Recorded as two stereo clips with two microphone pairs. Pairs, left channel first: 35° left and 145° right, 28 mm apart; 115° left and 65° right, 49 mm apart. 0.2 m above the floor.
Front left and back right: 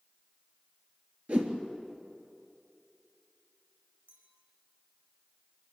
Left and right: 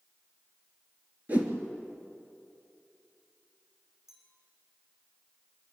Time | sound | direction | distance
1.3 | a whoosh | 120° right | 3 m
4.1 | a clink | 145° right | 7.5 m